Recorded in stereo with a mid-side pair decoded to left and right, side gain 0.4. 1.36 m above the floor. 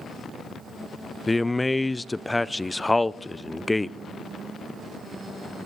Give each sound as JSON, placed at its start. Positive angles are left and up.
{"t": 1.3, "sound": "a man speaking", "azimuth_deg": 15, "distance_m": 0.5}